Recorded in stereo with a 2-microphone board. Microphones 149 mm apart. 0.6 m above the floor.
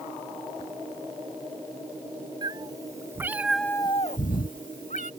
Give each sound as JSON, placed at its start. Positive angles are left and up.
{"t": 2.4, "sound": "a cat meowing", "side_deg": -30}